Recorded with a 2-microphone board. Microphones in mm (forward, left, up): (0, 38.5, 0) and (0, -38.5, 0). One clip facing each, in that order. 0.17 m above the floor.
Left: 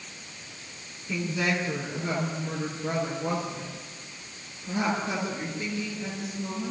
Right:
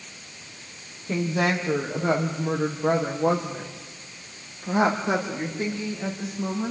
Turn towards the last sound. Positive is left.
turn(degrees=-60)  # may be behind; listen again after turning